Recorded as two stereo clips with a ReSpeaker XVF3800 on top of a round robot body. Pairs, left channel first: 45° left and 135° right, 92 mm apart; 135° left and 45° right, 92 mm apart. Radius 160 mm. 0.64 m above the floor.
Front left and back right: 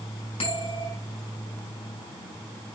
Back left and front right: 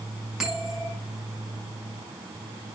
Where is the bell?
40° left, 5.5 m.